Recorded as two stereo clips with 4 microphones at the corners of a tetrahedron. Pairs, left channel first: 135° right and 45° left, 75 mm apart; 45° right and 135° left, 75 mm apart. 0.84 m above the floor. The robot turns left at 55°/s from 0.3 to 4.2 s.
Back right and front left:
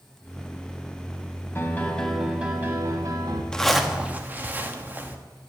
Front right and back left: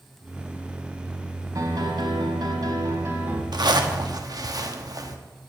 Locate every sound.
1.6 s a piano: 170° left, 1.6 m; by 3.4 s 65° left, 1.6 m
3.5 s a zipper: 145° left, 1.1 m; by 5.2 s 110° left, 1.1 m